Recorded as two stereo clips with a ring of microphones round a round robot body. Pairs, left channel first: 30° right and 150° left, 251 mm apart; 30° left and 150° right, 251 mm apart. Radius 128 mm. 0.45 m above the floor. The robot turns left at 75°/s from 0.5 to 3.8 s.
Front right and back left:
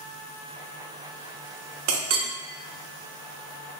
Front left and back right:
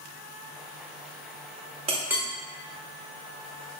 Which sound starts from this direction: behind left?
A clink, at 1.9 s.